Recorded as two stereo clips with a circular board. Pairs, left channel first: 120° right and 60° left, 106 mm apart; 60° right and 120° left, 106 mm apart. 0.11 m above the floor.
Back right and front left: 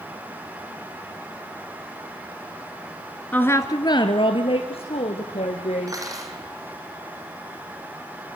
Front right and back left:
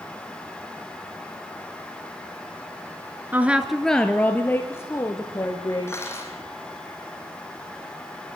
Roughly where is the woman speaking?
Behind.